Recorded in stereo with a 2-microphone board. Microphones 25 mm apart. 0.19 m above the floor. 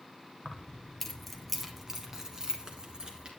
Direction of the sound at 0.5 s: 30° left (ahead or behind).